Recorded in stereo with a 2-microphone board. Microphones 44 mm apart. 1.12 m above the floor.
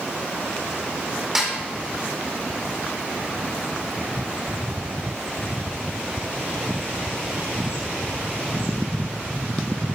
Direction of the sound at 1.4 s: 5° right (ahead or behind).